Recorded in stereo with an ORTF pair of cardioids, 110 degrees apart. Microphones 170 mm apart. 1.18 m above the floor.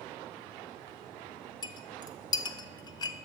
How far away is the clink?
About 0.5 m.